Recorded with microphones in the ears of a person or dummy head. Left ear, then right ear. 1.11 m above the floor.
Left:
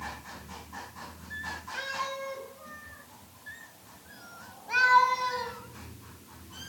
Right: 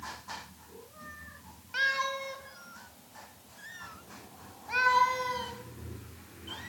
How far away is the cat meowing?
About 2 m.